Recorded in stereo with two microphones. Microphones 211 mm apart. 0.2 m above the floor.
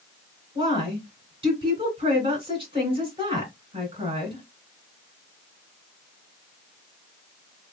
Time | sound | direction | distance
0.6 | a woman speaking | 25° right (ahead or behind) | 2 m